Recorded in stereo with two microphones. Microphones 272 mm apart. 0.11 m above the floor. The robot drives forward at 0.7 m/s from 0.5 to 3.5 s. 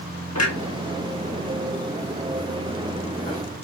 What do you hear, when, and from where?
0.3 s a clunk: 60° left (ahead or behind), 1.3 m; by 3.4 s 30° left (ahead or behind), 2 m